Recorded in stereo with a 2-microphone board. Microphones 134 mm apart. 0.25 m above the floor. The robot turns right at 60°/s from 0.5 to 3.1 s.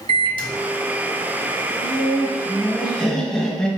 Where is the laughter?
75° right, 1.2 m; by 3.7 s 10° left, 1.2 m.